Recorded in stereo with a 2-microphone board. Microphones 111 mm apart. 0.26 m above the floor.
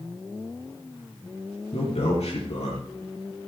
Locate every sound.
1.7 s a man speaking: 70° left (ahead or behind), 5 m